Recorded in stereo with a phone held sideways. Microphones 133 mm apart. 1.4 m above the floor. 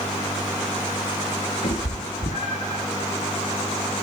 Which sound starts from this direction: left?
A cat meowing, at 1.6 s.